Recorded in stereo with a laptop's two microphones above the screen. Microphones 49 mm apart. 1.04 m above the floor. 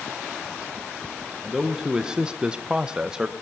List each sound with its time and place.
1.4 s a man speaking: 10° right (ahead or behind), 0.8 m; by 3.3 s 15° right (ahead or behind), 0.9 m